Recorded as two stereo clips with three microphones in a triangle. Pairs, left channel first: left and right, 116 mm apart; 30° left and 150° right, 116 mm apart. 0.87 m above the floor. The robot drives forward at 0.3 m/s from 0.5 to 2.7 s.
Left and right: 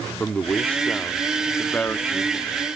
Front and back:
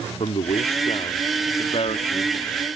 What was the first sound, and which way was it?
A man speaking, 15° left.